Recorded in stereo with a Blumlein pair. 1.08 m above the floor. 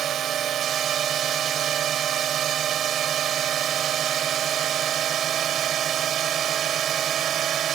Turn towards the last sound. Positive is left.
turn(degrees=-30)